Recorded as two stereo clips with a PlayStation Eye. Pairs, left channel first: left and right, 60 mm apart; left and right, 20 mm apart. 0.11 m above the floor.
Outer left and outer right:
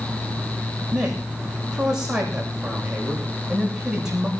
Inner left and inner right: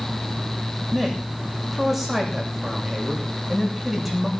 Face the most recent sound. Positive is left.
turn(degrees=-10)  # may be behind; listen again after turning